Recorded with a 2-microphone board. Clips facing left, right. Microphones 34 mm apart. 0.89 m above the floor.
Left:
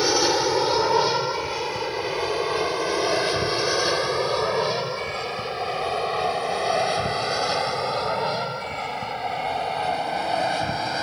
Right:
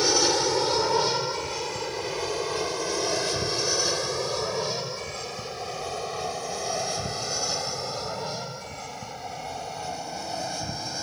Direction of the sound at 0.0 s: 15° left (ahead or behind).